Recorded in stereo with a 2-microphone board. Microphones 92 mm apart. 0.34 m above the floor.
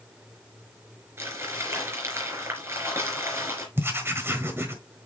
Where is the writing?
25° right (ahead or behind), 1.4 m.